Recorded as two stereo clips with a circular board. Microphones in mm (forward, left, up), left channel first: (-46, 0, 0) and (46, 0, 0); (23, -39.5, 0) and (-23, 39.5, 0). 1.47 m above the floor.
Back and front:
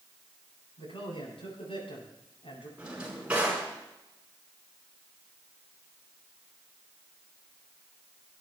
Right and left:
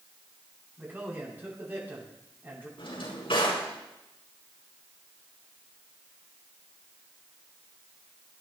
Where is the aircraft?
No aircraft in this recording.